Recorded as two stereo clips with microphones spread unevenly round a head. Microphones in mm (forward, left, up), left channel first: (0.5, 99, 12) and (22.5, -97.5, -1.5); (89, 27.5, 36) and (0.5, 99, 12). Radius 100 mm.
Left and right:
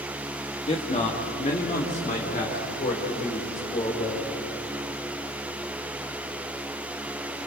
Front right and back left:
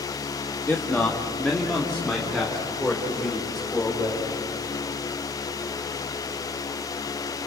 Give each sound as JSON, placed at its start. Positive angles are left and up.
{"t": 0.7, "sound": "a man speaking", "azimuth_deg": 35, "distance_m": 1.8}